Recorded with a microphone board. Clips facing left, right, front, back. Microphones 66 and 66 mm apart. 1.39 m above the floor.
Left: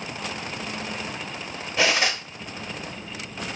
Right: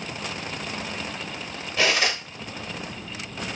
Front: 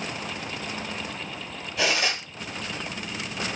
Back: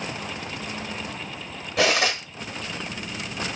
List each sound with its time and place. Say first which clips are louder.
1.8 s cutlery clinking: left 1 dB, back 4 dB; 160° left, 1.3 m